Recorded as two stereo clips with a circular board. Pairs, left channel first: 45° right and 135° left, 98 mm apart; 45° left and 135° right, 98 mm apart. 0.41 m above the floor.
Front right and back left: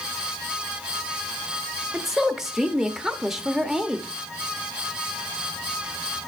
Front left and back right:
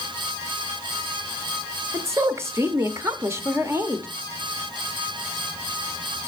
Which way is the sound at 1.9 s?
145° right.